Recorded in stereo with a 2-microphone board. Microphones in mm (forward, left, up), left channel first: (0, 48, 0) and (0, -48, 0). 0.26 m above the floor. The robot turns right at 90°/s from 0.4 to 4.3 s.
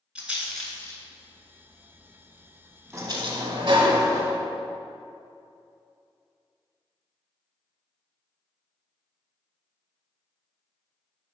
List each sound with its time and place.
0.1 s a rattle: 10° right (ahead or behind), 1.6 m; by 3.5 s 65° right (ahead or behind), 1.6 m
2.9 s a sliding door: 155° right, 0.8 m; by 4.4 s 30° right, 0.8 m